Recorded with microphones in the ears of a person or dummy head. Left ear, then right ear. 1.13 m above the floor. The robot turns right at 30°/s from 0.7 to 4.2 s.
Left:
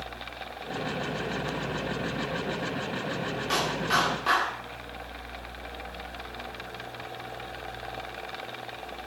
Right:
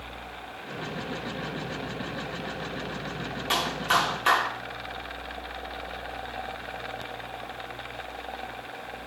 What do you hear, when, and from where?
3.5 s a clap: 30° right (ahead or behind), 3 m; by 4.5 s 50° right (ahead or behind), 3 m